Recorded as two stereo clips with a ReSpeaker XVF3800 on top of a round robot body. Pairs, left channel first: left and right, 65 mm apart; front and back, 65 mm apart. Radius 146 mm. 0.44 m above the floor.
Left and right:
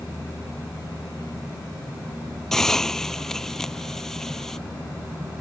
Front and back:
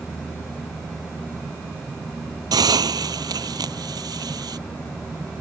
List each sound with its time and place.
2.5 s a hiss: 175° left